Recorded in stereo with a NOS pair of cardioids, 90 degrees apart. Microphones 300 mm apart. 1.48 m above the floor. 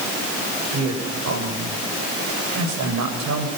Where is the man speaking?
60° right, 7.5 m.